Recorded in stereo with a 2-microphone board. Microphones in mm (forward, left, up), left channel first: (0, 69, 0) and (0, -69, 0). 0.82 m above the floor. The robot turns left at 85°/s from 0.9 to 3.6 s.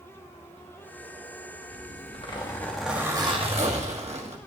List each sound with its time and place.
1.7 s a zipper: 95° left, 1.6 m; by 4.4 s 70° right, 1.6 m